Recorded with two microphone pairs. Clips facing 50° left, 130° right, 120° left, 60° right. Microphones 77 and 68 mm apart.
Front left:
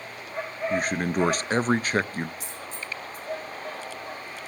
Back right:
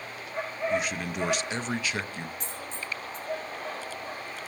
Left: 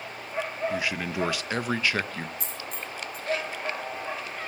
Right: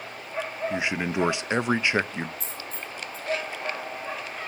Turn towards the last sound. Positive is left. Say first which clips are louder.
# even, even
turn(degrees=135)